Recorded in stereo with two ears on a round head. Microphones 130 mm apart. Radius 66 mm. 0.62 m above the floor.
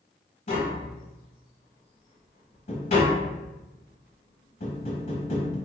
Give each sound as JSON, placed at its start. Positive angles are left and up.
{"t": 0.5, "sound": "tapping", "side_deg": 50, "distance_m": 1.1}